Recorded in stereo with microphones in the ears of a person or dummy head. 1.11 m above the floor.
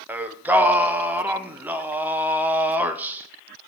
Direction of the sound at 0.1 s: 10° right (ahead or behind).